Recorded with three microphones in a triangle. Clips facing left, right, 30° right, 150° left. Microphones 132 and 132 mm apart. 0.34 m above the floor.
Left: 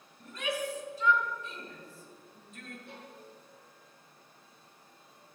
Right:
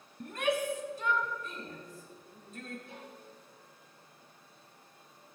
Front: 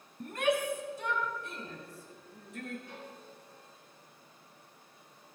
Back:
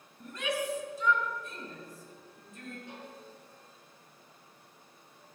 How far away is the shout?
About 3 m.